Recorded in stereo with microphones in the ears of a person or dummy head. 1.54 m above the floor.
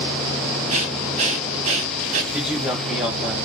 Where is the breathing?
30° right (ahead or behind), 0.8 m.